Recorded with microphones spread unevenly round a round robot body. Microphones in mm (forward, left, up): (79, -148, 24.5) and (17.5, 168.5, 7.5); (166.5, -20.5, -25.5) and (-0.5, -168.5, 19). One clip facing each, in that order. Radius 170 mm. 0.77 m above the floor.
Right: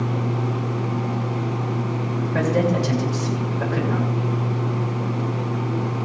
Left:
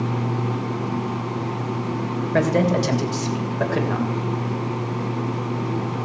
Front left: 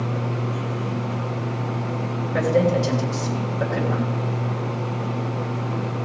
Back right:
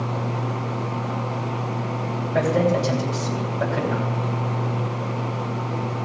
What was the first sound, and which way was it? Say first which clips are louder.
A man speaking: left 1 dB, front left 1 dB; 90° left.